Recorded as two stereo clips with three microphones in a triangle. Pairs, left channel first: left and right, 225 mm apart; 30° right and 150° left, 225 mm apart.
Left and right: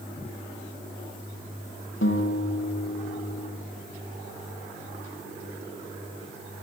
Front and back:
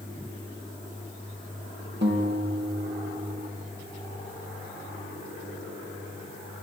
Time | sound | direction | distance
2.0 | a guitar | 115° left | 3.5 m